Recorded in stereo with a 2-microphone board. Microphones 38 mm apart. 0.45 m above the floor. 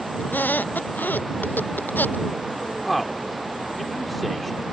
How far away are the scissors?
No scissors in this recording.